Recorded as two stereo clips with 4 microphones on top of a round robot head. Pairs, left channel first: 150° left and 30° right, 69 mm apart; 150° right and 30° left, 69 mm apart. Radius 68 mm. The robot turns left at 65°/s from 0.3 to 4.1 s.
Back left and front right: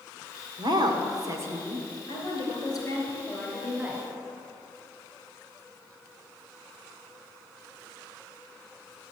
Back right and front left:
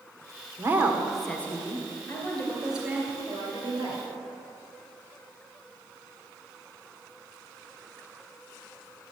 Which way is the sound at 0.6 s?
25° right.